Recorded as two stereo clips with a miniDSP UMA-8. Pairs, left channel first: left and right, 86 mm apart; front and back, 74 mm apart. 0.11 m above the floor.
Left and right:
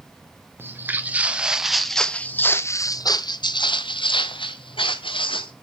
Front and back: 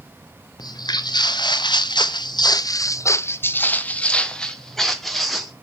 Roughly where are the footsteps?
Ahead right.